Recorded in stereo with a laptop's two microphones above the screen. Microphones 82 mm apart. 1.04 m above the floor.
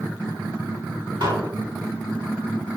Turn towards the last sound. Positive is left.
turn(degrees=-70)  # may be behind; listen again after turning